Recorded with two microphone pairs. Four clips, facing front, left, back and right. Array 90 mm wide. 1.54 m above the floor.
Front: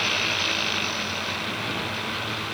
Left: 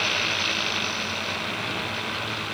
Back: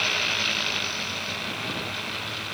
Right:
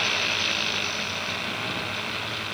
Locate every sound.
Only background noise.